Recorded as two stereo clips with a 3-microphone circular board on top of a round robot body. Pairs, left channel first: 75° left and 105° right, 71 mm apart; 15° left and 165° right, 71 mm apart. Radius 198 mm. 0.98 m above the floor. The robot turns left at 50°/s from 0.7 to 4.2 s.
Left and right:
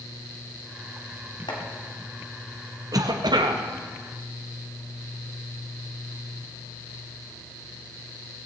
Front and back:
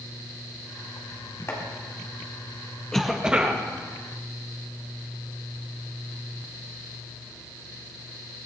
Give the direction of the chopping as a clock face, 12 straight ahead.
10 o'clock.